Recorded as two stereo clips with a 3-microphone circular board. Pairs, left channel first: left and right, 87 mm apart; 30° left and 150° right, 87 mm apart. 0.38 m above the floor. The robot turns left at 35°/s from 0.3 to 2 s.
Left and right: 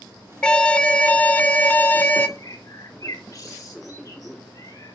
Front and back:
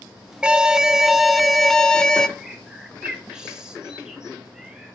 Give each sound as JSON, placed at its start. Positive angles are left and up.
{"t": 0.4, "sound": "an alarm", "azimuth_deg": 150, "distance_m": 0.6}
{"t": 2.4, "sound": "a bird", "azimuth_deg": 130, "distance_m": 1.1}